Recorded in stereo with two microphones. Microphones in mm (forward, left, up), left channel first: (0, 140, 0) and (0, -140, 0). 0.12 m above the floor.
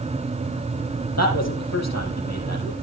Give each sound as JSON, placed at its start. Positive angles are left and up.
{"t": 1.2, "sound": "a man speaking", "side_deg": 65, "distance_m": 4.5}